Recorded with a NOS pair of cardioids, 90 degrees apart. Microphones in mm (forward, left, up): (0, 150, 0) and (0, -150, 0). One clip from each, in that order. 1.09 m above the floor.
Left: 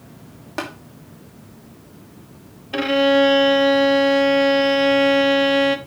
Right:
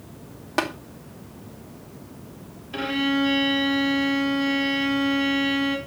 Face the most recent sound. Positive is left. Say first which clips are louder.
# left 9 dB
turn(degrees=50)